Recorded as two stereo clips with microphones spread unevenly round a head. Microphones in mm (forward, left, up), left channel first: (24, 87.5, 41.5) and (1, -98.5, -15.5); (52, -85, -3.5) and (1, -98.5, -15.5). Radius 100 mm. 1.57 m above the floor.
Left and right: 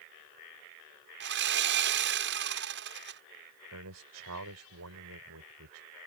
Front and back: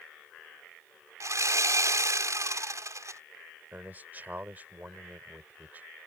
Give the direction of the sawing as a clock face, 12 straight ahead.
5 o'clock.